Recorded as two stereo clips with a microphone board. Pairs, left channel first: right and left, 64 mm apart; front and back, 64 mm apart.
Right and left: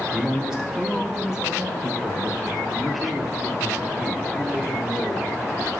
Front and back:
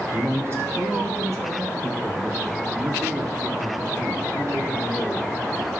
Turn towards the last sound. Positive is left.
turn(degrees=175)